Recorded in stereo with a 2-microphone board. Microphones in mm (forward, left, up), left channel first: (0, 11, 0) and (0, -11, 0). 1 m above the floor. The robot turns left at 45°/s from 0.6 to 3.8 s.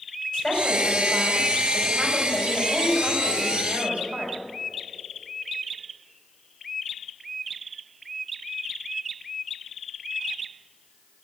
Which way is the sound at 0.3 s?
60° left.